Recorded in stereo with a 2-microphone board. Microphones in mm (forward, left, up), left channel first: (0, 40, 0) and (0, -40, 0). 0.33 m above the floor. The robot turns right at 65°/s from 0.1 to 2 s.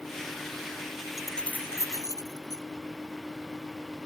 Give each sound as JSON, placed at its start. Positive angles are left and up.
{"t": 1.2, "sound": "keys jangling", "side_deg": -5}